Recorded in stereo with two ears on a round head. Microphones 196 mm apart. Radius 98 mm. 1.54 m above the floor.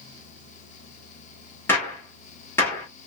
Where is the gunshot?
10° left (ahead or behind), 1.3 m.